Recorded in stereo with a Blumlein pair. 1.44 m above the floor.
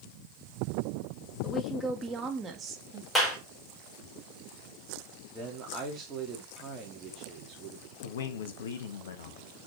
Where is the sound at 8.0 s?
60° left, 1.4 m.